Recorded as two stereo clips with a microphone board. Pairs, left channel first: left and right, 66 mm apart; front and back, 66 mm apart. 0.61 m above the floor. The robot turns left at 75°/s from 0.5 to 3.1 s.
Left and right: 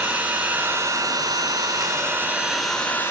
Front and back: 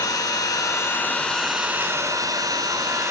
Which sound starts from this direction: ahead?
An engine running, at 0.0 s.